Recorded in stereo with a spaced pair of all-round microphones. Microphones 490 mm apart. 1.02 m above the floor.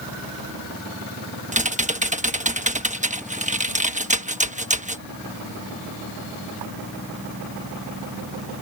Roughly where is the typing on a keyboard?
Centre.